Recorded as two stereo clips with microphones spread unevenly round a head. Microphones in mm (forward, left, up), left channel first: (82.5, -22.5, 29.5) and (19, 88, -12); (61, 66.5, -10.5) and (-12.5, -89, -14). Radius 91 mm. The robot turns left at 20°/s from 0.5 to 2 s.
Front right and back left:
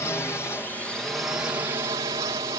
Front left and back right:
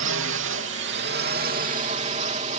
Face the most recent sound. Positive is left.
turn(degrees=-170)